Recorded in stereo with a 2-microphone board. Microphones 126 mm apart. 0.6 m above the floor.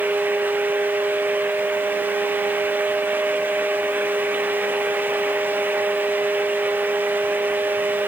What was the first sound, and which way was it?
Only background noise.